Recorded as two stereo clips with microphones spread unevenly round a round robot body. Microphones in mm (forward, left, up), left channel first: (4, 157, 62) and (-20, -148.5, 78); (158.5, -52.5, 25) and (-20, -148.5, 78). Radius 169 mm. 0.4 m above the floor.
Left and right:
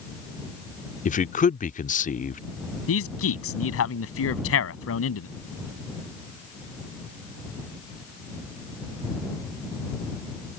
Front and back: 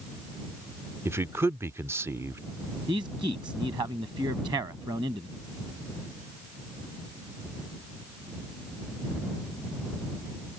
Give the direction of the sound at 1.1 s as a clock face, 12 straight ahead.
8 o'clock.